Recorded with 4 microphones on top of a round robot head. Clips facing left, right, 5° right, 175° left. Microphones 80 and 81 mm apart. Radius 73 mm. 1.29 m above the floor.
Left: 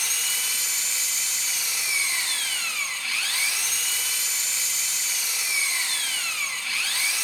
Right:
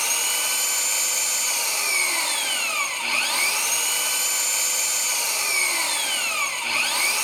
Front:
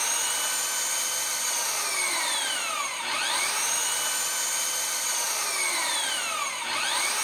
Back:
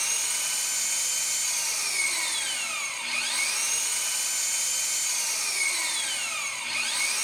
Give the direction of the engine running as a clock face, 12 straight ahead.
2 o'clock.